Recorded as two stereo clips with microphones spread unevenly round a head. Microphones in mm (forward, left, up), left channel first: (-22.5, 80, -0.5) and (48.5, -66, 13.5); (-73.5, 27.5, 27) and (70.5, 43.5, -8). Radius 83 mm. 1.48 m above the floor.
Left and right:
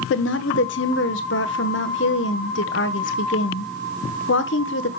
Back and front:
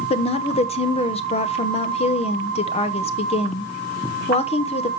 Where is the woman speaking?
135° left, 1.1 m.